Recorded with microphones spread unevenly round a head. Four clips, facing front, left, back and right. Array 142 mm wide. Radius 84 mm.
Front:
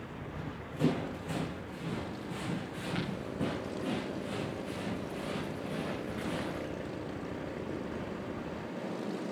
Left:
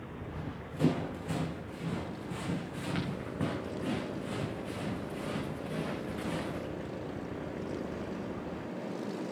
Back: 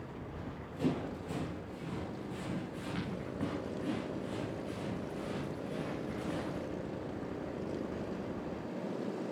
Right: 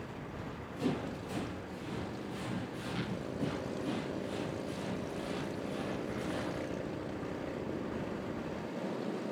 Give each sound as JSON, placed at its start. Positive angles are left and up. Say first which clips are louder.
{"t": 0.2, "sound": "running footsteps", "louder": "left 2 dB, front 2 dB", "azimuth_deg": 45, "distance_m": 5.0}